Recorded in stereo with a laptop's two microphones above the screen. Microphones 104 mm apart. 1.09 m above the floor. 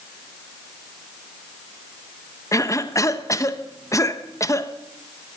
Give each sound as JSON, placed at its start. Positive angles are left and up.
{"t": 2.5, "sound": "a cough", "side_deg": 30, "distance_m": 0.9}